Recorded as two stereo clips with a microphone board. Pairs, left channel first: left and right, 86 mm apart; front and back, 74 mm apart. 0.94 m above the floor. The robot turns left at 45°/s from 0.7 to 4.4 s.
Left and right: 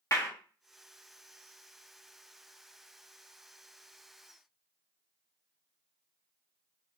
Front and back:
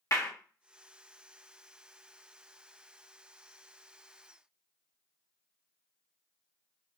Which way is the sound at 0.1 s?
35° left.